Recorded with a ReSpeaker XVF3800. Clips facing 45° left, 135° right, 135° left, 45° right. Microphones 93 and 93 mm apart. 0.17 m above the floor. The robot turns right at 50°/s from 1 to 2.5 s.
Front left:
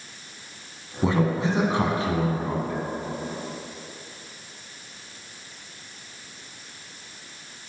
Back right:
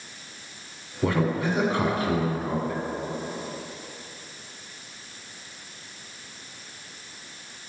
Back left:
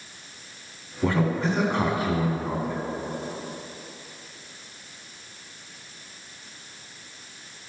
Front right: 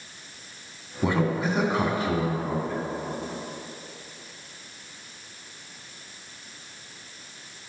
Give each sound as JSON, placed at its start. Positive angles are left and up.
{"t": 1.0, "sound": "a man speaking", "azimuth_deg": 0, "distance_m": 1.1}